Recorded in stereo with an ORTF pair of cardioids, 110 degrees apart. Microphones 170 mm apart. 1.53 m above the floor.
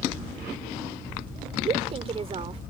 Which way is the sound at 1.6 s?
35° right.